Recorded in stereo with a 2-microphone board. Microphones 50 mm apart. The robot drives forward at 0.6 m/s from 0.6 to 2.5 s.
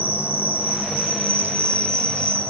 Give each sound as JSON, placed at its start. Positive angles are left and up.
{"t": 0.0, "sound": "an insect", "side_deg": -30, "distance_m": 0.9}